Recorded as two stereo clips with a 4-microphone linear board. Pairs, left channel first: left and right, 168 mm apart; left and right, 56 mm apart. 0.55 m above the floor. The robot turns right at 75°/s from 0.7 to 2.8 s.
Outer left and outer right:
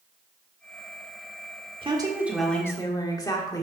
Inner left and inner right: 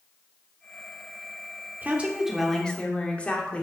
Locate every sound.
1.8 s a woman speaking: 45° right, 1.3 m; by 3.6 s 30° left, 1.3 m